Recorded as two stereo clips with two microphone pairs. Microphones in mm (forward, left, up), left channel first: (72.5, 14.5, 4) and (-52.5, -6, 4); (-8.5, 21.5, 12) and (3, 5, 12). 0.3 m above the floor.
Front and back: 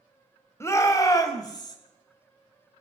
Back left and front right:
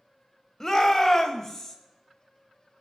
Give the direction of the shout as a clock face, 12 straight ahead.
10 o'clock.